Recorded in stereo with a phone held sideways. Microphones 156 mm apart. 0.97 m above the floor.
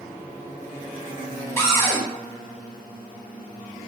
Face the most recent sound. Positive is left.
turn(degrees=15)  # may be behind; listen again after turning